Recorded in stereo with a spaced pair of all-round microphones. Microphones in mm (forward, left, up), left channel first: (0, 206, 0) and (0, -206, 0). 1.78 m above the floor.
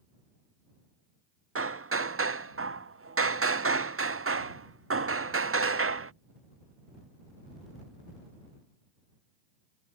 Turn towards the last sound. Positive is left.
turn(degrees=-35)  # may be behind; listen again after turning